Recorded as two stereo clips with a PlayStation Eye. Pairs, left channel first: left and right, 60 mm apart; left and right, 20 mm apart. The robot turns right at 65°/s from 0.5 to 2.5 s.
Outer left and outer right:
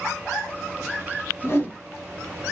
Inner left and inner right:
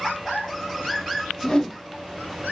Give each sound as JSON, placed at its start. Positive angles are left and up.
{"t": 1.4, "sound": "a whoosh", "side_deg": 40, "distance_m": 1.7}